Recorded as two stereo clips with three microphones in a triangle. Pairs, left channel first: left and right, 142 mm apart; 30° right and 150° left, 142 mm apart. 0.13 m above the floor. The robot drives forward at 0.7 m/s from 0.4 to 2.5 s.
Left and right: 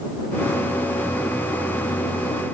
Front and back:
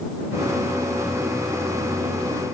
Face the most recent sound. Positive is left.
No sound to turn to.